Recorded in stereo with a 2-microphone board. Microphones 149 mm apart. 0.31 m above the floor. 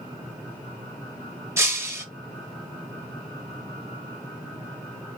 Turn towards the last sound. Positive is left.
turn(degrees=-20)  # may be behind; listen again after turning